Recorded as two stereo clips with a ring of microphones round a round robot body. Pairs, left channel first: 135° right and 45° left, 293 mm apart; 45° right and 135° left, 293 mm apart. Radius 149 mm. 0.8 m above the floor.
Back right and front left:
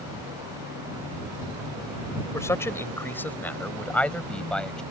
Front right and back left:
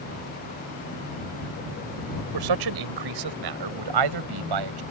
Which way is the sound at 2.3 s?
145° left.